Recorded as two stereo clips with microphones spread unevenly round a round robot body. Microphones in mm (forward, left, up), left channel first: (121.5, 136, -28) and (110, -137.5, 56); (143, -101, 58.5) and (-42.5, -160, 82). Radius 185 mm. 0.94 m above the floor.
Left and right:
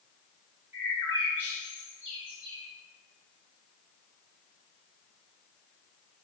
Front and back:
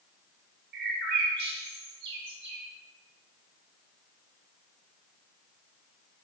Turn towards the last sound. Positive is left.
turn(degrees=-165)